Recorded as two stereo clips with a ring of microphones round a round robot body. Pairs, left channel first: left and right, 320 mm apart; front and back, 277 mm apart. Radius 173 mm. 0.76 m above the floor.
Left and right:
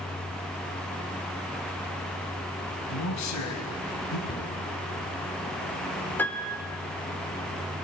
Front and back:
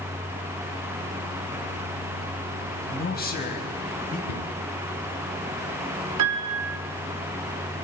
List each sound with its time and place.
2.9 s a man speaking: 55° left, 4 m; by 4.2 s 60° left, 5.5 m
4.3 s a cupboard door: 15° left, 4.5 m
6.2 s a piano: 175° left, 2.5 m